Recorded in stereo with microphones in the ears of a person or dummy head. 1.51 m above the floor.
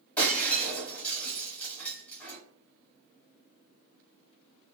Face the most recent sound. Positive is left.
turn(degrees=10)  # may be behind; listen again after turning